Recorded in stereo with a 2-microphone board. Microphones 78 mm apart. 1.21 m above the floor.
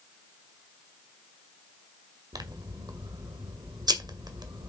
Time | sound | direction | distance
2.3 | scissors | 65° right (ahead or behind) | 1.8 m